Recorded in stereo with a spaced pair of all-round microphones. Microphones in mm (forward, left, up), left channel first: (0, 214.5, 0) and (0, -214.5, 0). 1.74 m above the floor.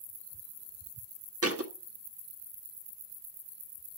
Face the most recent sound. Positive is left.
turn(degrees=-35)  # may be behind; listen again after turning